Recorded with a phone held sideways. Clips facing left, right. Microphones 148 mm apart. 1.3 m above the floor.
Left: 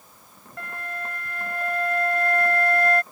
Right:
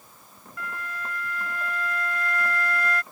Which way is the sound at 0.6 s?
55° left (ahead or behind).